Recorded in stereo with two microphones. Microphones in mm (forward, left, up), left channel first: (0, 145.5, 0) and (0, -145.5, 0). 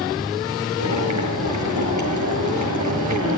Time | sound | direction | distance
0.8 | boiling | 75° right (ahead or behind) | 7 m